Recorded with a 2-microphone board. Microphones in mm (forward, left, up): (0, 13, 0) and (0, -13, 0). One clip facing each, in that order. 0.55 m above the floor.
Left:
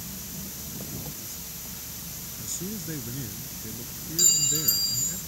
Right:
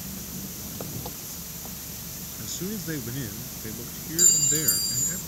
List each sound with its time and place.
0.0 s an engine running: 30° right (ahead or behind)
2.4 s a man speaking: 30° right (ahead or behind)
4.2 s a clink: 20° left (ahead or behind)